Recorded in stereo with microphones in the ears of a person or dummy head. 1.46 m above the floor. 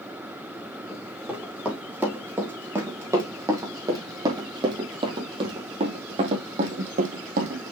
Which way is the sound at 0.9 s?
5° right (ahead or behind).